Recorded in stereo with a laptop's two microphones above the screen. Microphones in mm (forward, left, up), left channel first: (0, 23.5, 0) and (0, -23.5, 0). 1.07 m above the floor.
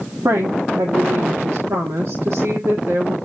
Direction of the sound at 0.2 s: 75° right (ahead or behind).